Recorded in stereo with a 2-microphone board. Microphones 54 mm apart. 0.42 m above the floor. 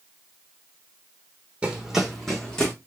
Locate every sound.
1.6 s running footsteps: 20° right (ahead or behind), 1.2 m; by 2.7 s 15° left (ahead or behind), 1.8 m